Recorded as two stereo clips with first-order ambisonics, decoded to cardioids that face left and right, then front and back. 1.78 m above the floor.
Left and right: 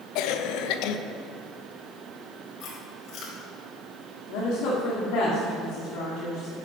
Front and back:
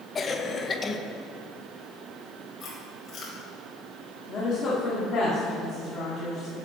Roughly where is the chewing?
Ahead left.